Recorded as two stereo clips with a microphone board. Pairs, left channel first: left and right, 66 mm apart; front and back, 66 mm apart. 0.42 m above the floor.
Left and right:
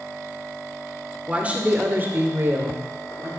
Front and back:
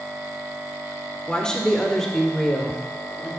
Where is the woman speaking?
55° right, 1.4 m; by 3.3 s 85° right, 2 m.